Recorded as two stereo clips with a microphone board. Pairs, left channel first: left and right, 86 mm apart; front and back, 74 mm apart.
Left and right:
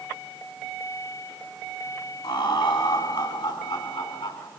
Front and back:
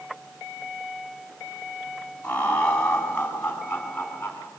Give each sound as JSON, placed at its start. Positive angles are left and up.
{"t": 2.2, "sound": "laughter", "azimuth_deg": 70, "distance_m": 7.5}